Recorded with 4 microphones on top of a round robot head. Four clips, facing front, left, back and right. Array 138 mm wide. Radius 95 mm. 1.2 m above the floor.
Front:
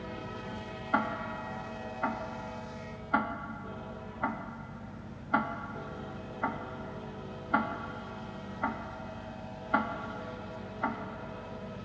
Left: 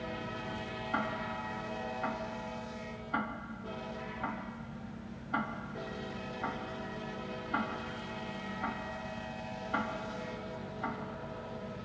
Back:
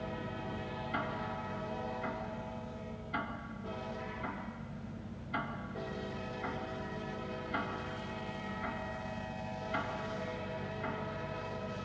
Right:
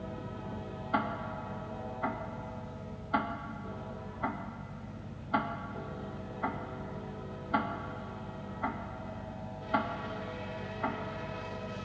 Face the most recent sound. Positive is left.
turn(degrees=-10)